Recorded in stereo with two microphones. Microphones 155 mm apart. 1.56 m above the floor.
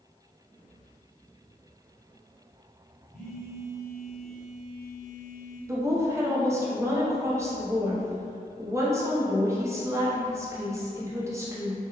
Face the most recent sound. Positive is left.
turn(degrees=-15)  # may be behind; listen again after turning